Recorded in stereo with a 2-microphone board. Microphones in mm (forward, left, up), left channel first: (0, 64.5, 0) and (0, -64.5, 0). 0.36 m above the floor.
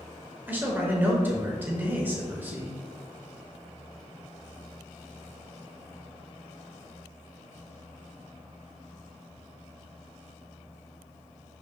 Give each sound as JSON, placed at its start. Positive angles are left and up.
{"t": 0.5, "sound": "a man speaking", "side_deg": -15, "distance_m": 0.9}